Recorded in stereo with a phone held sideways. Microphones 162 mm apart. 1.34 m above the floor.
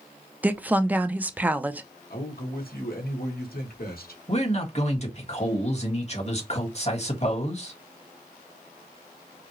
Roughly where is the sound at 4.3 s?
Left.